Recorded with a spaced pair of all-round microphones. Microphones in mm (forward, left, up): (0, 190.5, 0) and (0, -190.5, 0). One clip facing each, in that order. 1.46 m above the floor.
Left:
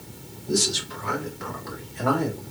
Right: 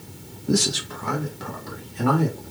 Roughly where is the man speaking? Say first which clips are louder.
Right 3 dB; right.